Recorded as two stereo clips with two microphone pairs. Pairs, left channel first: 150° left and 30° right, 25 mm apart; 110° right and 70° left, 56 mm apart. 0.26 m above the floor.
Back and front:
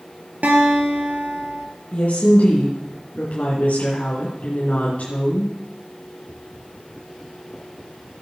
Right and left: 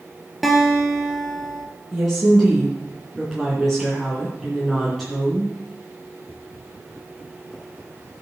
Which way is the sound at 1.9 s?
160° left.